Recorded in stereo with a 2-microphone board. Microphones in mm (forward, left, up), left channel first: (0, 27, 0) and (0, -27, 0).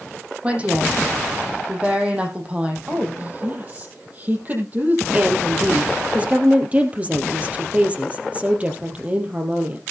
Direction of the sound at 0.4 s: 25° right (ahead or behind).